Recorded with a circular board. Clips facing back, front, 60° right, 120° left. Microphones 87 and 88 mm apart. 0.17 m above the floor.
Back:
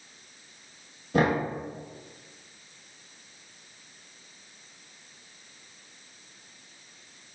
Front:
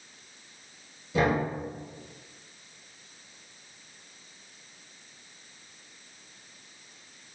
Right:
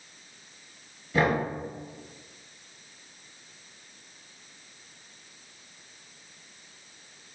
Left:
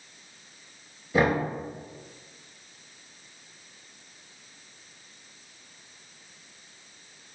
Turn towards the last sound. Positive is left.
turn(degrees=-165)